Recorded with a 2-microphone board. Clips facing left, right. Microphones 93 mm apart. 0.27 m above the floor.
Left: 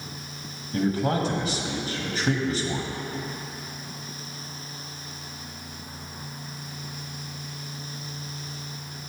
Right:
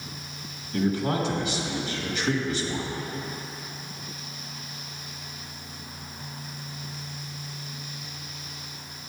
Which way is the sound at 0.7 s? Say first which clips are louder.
Left 1 dB; 40° left (ahead or behind).